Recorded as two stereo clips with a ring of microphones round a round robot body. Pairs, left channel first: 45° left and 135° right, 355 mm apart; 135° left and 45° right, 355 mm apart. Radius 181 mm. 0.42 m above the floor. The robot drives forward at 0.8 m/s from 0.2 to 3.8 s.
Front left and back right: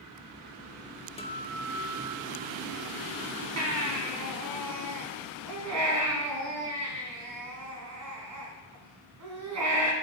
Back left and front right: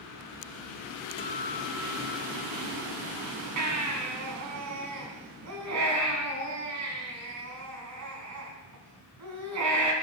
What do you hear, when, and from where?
1.2 s a guitar: 90° left, 1.0 m; by 3.3 s 170° left, 1.9 m
3.6 s a baby crying: 85° right, 2.5 m; by 9.9 s 90° right, 2.5 m